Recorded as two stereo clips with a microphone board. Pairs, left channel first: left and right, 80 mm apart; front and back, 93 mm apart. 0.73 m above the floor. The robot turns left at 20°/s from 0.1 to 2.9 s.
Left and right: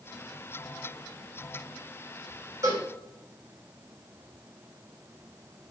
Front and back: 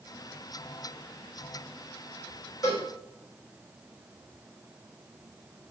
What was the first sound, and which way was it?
A cowbell, 45° right.